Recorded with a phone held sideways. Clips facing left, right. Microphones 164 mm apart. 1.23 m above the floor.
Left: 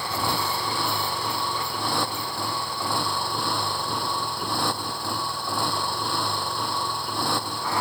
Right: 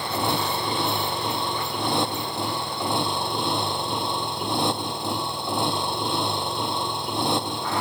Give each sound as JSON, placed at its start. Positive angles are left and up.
{"t": 0.0, "sound": "a motorcycle", "side_deg": -20}